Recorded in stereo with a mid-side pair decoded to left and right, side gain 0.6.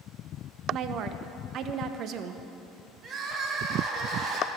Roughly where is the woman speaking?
Ahead right.